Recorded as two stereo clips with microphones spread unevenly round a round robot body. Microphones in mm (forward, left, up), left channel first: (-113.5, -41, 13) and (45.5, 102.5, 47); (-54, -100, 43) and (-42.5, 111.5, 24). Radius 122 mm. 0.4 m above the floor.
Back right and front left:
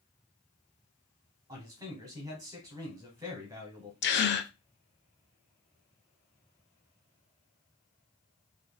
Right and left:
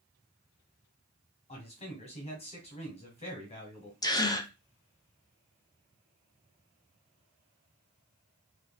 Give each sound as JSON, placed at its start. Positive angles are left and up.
{"t": 1.5, "sound": "a man speaking", "azimuth_deg": -40, "distance_m": 1.2}
{"t": 4.0, "sound": "a gasp", "azimuth_deg": -170, "distance_m": 0.5}